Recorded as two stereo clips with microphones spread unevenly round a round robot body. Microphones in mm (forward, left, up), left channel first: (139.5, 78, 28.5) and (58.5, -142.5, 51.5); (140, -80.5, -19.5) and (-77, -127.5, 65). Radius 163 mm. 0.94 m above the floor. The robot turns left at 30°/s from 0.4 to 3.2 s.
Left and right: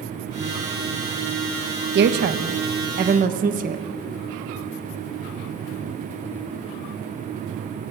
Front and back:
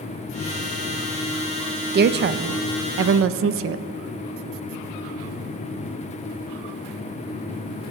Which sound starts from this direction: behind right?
A woman speaking, at 1.9 s.